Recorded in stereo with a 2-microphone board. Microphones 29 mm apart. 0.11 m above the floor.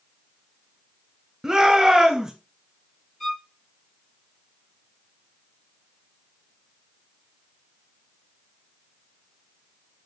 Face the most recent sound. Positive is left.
turn(degrees=0)  # may be behind; listen again after turning